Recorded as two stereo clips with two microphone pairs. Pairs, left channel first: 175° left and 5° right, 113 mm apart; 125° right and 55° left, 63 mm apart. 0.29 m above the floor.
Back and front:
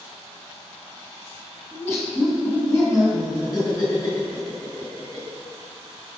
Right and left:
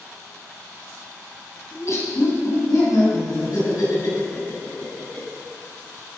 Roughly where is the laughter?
Behind right.